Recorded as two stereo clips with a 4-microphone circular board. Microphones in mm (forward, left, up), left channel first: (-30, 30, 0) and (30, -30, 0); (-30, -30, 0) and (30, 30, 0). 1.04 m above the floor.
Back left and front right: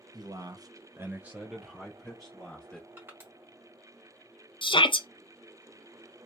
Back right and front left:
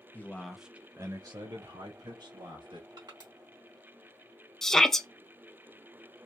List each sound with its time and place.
0.1 s a man speaking: 70° right, 0.8 m; by 2.9 s 60° left, 1.7 m
3.0 s crushing: 20° left, 1.9 m
4.6 s a shout: 140° left, 0.6 m